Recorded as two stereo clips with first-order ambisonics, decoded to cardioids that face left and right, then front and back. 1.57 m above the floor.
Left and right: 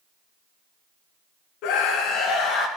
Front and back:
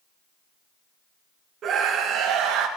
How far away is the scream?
About 1.9 m.